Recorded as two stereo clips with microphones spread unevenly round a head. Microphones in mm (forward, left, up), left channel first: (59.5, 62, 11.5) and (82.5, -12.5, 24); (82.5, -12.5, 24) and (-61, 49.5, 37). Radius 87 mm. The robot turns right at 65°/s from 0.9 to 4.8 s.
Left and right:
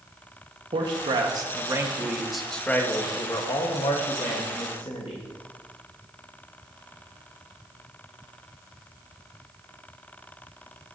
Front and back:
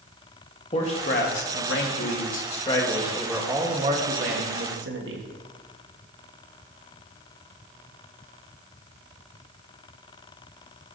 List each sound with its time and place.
0.7 s a man speaking: 80° right, 1.4 m; by 5.3 s 170° left, 1.4 m